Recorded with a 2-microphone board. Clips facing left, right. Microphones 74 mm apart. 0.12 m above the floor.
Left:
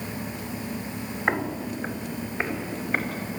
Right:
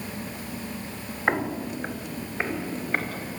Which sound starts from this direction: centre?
Footsteps, at 1.3 s.